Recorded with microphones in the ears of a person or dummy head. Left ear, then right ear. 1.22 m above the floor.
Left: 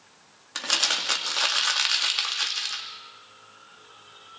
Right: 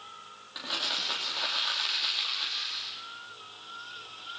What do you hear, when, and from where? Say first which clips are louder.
0.6 s crumpling: left 7 dB; 65° left (ahead or behind), 2.5 m